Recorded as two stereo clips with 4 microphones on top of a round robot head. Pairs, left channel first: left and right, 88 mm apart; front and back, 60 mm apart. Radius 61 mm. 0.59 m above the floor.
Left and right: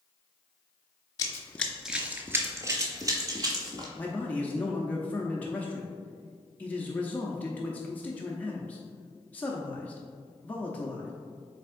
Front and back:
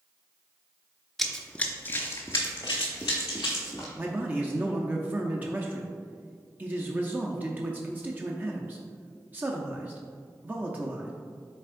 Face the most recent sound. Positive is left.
turn(degrees=145)